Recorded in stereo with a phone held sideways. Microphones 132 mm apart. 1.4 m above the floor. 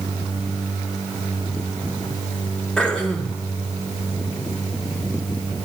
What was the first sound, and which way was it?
Throat clearing, 5° left (ahead or behind).